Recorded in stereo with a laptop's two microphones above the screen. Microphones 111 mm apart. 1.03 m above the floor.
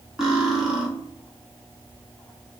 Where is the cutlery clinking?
5° right (ahead or behind), 0.8 m.